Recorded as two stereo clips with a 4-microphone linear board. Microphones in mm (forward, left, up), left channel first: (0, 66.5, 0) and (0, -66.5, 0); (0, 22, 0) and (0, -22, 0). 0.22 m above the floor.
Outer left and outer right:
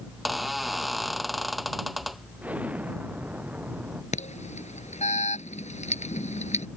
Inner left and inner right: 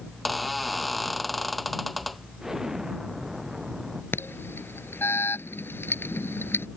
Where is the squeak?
Centre (ahead or behind).